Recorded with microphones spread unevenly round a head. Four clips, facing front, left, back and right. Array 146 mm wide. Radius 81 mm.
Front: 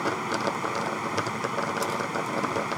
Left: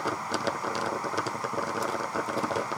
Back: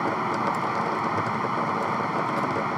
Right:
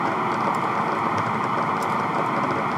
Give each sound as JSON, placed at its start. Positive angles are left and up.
{"t": 0.0, "sound": "running water", "azimuth_deg": -95}